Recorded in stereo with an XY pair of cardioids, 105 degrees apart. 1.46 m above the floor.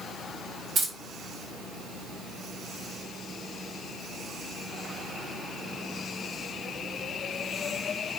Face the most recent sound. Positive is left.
turn(degrees=-60)